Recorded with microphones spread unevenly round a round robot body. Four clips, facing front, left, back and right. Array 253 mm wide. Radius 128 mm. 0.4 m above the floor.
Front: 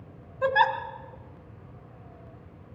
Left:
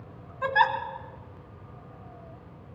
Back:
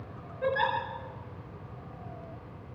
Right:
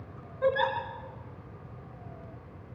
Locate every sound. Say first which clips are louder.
0.4 s a giggle: left 3 dB, front 5 dB; 10° left, 1.8 m